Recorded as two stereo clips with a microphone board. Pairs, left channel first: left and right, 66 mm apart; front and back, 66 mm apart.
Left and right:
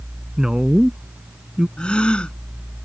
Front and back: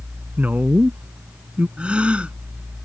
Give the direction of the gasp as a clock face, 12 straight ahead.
7 o'clock.